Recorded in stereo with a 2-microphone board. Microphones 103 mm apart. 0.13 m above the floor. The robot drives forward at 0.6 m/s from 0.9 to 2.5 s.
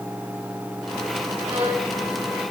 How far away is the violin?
About 6.5 m.